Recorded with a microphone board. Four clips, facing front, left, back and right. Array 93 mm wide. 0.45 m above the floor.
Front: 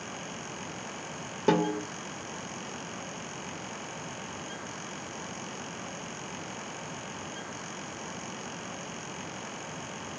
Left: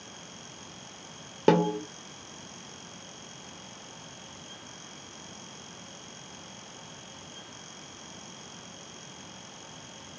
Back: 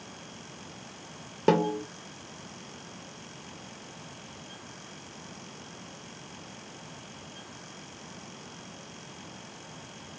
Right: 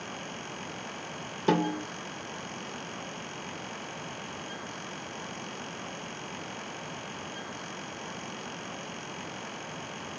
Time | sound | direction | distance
1.5 | a snare drum | 110° left | 1.0 m